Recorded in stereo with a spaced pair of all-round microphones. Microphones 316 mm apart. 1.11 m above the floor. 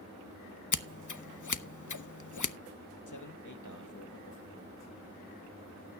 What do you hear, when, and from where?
0.7 s scissors: 70° left (ahead or behind), 0.7 m
3.1 s a man speaking: 70° left (ahead or behind), 2 m